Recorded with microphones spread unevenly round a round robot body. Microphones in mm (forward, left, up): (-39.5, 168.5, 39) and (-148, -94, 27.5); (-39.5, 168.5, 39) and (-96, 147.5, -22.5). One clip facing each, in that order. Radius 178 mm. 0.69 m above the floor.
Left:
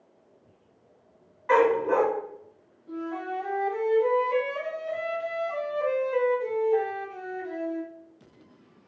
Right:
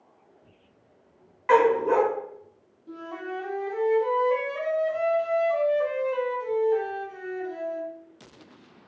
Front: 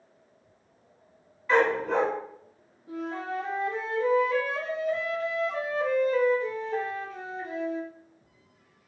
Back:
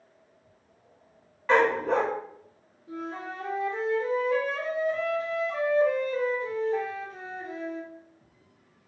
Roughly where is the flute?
Right.